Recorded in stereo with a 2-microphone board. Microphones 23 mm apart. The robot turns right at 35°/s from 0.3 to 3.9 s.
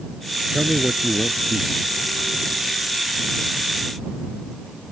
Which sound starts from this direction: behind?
A man speaking, at 0.5 s.